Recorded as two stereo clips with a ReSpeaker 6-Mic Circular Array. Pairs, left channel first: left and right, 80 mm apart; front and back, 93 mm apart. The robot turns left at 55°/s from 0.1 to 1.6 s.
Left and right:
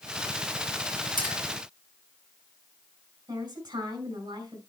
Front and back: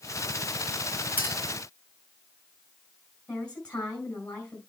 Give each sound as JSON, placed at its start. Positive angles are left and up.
{"t": 1.2, "sound": "a clink", "azimuth_deg": -105, "distance_m": 4.0}
{"t": 3.3, "sound": "a woman speaking", "azimuth_deg": -75, "distance_m": 4.5}